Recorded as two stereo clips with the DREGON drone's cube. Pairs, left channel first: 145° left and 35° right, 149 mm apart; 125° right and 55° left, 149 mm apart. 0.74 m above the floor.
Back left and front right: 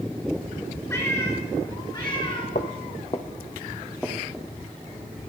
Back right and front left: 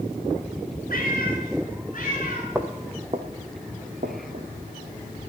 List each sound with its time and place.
0.9 s a cat meowing: 140° right, 4.5 m; by 2.5 s 155° right, 4.5 m
2.5 s footsteps: 135° left, 1.5 m; by 4.5 s 55° left, 2.5 m